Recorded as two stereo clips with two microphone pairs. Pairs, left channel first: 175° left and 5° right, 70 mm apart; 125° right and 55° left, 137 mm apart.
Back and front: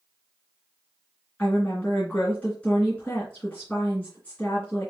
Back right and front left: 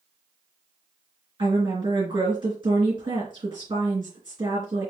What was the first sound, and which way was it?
A woman speaking, 105° left.